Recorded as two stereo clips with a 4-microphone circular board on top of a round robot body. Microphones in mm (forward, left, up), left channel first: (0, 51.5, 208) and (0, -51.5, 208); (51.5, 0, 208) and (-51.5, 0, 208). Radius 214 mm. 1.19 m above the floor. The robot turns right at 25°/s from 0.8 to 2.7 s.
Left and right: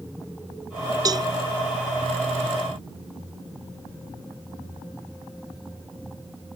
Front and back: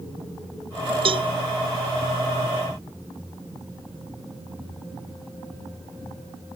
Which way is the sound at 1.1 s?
145° right.